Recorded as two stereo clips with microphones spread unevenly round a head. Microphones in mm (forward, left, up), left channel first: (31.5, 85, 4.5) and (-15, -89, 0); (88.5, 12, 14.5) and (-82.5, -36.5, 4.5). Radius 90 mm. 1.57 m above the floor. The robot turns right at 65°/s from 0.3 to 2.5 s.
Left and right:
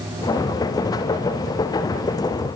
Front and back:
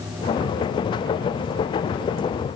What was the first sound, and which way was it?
Only background noise.